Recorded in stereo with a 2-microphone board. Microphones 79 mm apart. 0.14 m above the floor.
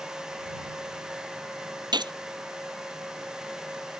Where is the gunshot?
75° right (ahead or behind).